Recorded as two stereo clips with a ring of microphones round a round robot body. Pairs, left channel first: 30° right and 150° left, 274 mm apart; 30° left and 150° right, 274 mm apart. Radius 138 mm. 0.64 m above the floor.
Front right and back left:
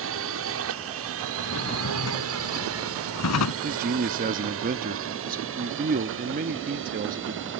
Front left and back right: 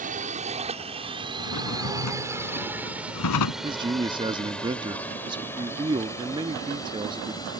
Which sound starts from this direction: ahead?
A drawer, at 1.4 s.